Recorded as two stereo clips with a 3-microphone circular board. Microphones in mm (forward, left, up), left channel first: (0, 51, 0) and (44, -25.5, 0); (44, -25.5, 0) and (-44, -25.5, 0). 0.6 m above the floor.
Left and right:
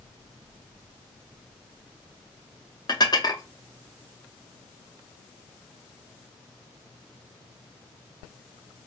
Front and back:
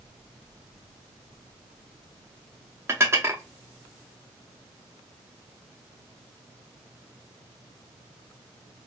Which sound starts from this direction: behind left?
Dishes clattering, at 2.9 s.